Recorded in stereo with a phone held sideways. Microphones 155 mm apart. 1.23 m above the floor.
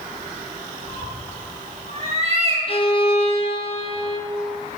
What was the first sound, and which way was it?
A cat meowing, 50° right (ahead or behind).